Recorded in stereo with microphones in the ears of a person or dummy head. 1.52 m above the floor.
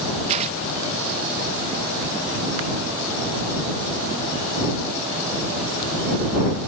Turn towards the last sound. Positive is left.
turn(degrees=-25)  # may be behind; listen again after turning